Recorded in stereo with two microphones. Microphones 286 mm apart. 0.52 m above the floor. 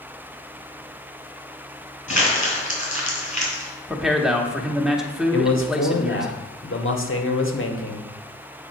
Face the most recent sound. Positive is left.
turn(degrees=50)  # may be behind; listen again after turning